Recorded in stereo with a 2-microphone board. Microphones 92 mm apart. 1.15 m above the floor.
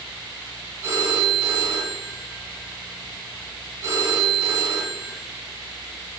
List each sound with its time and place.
0.8 s a phone ringing: 30° right (ahead or behind), 3.5 m